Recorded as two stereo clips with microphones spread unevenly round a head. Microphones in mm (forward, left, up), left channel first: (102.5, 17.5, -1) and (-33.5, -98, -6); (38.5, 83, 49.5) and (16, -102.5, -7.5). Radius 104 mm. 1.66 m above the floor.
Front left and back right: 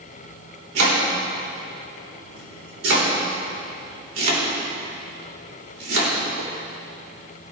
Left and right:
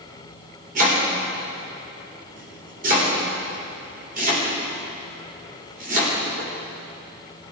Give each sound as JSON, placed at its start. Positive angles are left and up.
{"t": 0.8, "sound": "chopping", "azimuth_deg": -155, "distance_m": 4.0}